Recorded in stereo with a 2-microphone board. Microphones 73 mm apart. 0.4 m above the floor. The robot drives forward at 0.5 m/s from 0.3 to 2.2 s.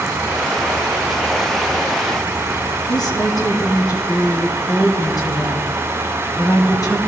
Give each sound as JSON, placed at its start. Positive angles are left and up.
{"t": 2.9, "sound": "a woman speaking", "side_deg": 65, "distance_m": 3.0}